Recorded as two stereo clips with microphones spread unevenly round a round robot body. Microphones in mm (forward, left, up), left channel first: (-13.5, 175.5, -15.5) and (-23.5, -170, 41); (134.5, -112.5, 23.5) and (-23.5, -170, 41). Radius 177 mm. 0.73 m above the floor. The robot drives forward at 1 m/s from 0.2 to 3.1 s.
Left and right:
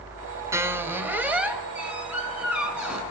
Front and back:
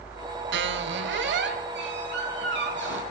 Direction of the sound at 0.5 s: 175° right.